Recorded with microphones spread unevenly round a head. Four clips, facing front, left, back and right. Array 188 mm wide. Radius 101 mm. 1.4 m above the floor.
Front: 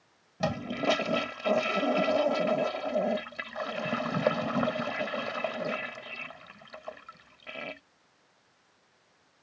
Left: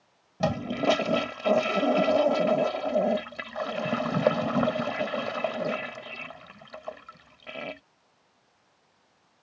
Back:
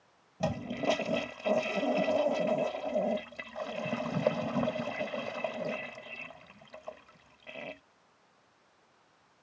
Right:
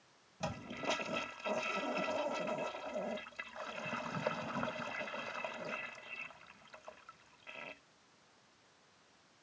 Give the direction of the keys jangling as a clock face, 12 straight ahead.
No keys jangling in this recording.